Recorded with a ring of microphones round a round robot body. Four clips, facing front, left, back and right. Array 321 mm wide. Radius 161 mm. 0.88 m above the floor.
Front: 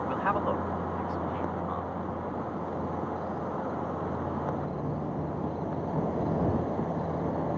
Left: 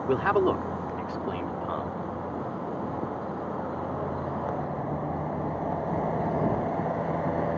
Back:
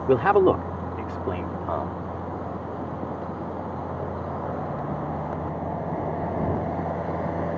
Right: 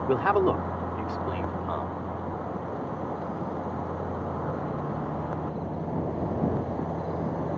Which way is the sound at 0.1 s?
175° left.